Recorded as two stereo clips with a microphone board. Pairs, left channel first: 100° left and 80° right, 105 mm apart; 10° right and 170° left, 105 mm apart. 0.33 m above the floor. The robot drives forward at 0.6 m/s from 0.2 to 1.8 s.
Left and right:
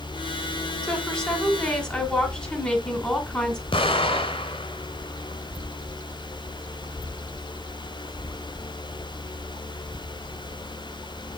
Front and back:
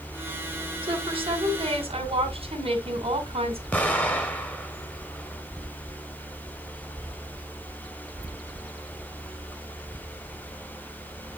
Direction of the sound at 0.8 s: Straight behind.